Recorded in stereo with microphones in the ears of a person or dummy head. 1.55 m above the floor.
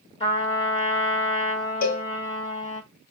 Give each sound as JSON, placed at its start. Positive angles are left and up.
{"t": 0.2, "sound": "a trumpet", "side_deg": 25, "distance_m": 1.2}
{"t": 1.8, "sound": "a cowbell", "side_deg": 45, "distance_m": 0.6}